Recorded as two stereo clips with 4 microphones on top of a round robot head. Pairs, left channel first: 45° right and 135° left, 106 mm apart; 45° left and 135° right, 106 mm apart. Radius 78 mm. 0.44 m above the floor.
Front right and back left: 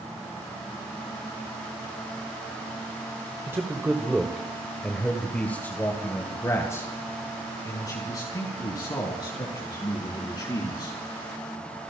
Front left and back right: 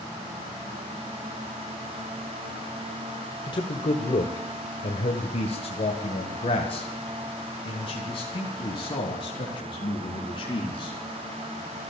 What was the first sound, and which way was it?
A man speaking, 75° left.